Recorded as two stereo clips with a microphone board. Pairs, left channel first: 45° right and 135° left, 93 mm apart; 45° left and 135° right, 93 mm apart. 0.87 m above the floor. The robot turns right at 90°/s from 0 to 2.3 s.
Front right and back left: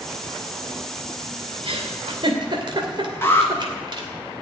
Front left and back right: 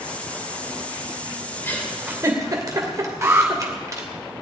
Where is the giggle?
110° left, 2.5 m; by 4.1 s 170° left, 2.5 m.